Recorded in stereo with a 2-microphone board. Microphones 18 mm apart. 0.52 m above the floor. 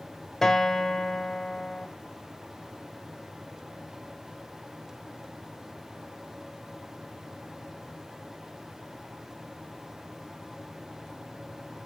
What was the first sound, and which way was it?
A guitar, 15° left (ahead or behind).